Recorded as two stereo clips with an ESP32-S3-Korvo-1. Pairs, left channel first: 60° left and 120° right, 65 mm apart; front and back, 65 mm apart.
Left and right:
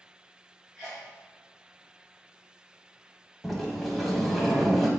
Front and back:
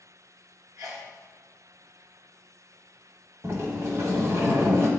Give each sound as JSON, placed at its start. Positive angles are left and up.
{"t": 0.8, "sound": "a sneeze", "azimuth_deg": 145, "distance_m": 2.0}
{"t": 3.4, "sound": "a sliding door", "azimuth_deg": 150, "distance_m": 1.5}